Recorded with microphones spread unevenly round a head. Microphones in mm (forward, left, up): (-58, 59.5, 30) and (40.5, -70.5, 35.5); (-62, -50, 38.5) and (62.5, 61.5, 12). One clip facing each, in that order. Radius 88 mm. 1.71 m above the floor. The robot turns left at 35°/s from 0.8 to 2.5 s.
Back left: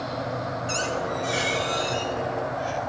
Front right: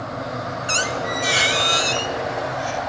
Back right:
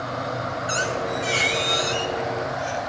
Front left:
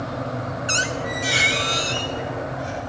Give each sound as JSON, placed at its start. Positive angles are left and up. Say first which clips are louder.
{"t": 0.7, "sound": "a squeak", "louder": "front right 3 dB, back right 3 dB", "azimuth_deg": -25, "distance_m": 1.8}